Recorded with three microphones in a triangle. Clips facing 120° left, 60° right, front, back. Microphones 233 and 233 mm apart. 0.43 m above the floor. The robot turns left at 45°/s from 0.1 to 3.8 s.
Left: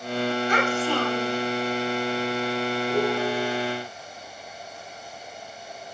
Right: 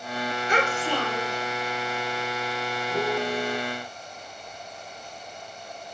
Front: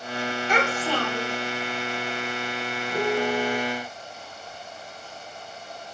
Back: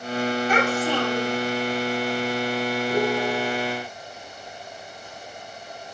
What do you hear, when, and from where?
0.5 s a child speaking: 95° right, 1.1 m; by 1.4 s 135° right, 1.1 m
2.9 s a piano: 150° left, 1.1 m; by 3.6 s 120° left, 1.1 m